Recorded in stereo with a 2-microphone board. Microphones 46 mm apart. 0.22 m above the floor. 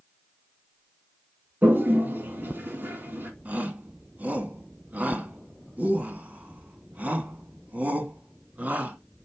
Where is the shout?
40° right (ahead or behind), 1.7 m.